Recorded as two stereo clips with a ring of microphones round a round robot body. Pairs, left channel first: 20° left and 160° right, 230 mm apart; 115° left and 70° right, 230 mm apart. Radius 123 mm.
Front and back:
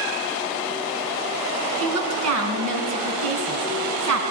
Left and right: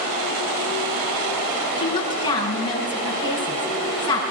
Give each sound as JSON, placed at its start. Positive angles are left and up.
{"t": 1.8, "sound": "a woman speaking", "azimuth_deg": -175, "distance_m": 5.0}